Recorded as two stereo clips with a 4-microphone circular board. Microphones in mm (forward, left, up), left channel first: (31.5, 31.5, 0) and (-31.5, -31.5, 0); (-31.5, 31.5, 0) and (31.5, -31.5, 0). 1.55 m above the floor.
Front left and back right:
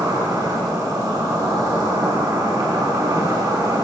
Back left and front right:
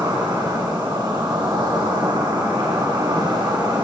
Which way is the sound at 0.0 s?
85° right.